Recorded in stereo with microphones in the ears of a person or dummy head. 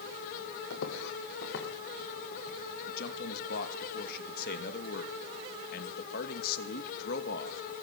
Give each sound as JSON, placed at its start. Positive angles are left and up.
{"t": 0.7, "sound": "footsteps", "side_deg": 65, "distance_m": 4.0}
{"t": 2.9, "sound": "a man speaking", "side_deg": 50, "distance_m": 2.5}